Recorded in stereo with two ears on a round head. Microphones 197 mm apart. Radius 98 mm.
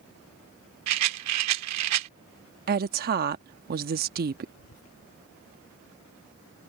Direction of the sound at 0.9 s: 85° right.